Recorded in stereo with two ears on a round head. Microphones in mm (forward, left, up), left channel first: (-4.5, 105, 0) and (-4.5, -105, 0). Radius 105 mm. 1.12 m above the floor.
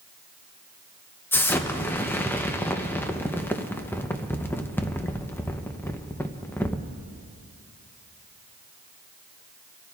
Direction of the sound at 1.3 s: 10° left (ahead or behind).